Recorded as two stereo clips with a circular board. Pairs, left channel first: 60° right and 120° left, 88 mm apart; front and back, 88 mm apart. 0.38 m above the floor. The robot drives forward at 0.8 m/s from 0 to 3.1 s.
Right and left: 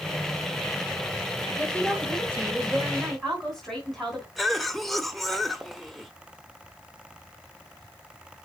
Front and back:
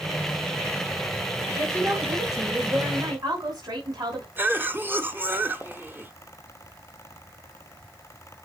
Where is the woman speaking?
135° right, 2.5 m; by 4.3 s 150° right, 3.5 m.